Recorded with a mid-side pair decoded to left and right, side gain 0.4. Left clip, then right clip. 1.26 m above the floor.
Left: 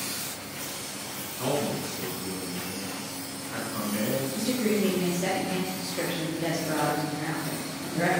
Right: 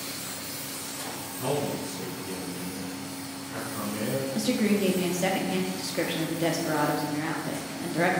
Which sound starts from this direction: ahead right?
A woman speaking, at 4.3 s.